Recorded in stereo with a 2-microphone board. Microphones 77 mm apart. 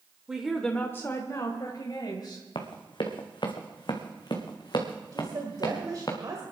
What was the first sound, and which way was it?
A woman speaking, 10° right (ahead or behind).